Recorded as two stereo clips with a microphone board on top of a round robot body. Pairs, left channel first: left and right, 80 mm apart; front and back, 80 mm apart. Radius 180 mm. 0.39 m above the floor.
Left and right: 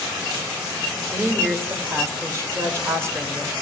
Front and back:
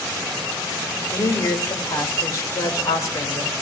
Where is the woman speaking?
40° right, 1.9 m.